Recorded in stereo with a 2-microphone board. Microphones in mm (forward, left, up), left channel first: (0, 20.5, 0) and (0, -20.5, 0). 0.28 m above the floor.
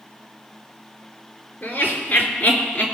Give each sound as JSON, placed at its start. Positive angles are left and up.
{"t": 1.6, "sound": "laughter", "side_deg": 45, "distance_m": 3.5}